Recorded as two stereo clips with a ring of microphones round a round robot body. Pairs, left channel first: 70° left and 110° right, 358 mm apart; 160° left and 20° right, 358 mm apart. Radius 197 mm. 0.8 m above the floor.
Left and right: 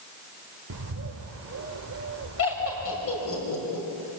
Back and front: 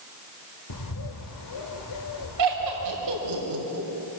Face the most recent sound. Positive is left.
turn(degrees=15)